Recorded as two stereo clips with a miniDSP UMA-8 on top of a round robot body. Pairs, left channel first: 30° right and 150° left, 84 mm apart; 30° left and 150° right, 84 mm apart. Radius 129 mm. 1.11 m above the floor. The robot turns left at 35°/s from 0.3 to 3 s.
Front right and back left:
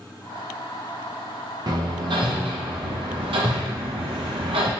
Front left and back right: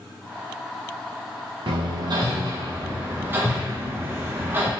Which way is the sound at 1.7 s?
170° right.